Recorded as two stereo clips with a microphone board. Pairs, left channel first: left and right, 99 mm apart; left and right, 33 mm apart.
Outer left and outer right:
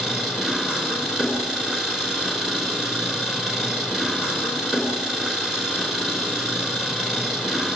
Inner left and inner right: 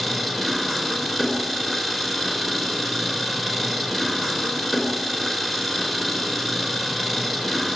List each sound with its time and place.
0.0 s an engine running: 5° right (ahead or behind), 5 m